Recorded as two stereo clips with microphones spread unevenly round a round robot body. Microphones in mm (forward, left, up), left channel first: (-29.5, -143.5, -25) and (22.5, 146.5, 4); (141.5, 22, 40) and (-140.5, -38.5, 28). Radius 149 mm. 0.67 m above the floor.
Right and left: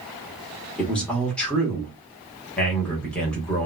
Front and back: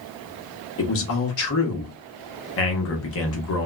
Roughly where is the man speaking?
Ahead.